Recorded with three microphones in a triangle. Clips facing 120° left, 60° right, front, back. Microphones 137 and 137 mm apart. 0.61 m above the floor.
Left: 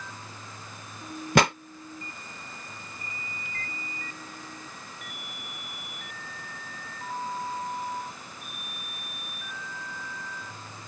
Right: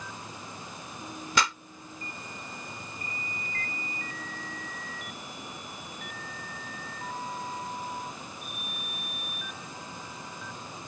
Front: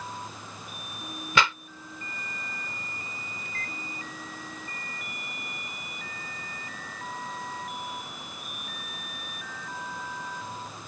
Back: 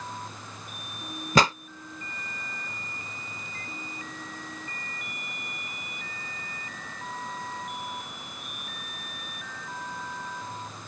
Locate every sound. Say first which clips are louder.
1.4 s a pop: left 7 dB, back 4 dB; 135° left
3.5 s a microwave: right 2 dB, front 1 dB; 15° right